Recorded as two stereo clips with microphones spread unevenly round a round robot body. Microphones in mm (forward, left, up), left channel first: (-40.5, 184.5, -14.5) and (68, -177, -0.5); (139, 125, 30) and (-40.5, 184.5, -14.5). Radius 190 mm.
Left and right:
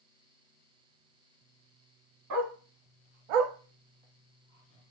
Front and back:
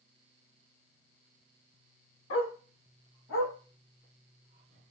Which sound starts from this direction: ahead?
A dog barking, at 2.3 s.